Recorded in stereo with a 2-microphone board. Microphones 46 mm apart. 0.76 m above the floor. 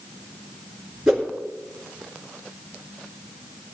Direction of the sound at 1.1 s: 10° right (ahead or behind).